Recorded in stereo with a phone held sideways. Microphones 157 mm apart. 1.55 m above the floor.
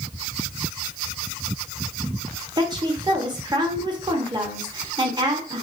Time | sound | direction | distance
2.6 | a woman speaking | 30° right (ahead or behind) | 0.7 m